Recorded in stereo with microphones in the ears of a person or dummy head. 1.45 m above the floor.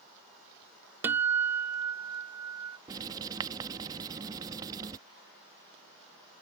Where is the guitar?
10° right (ahead or behind).